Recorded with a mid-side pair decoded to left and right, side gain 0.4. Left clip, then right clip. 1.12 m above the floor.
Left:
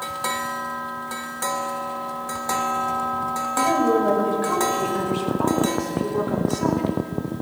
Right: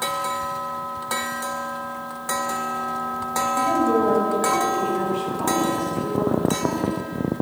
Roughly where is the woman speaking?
Ahead left.